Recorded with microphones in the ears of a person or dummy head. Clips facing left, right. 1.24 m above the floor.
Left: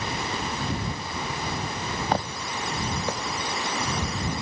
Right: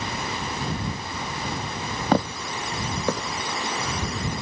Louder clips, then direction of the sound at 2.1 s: Right 8 dB; 60° right (ahead or behind).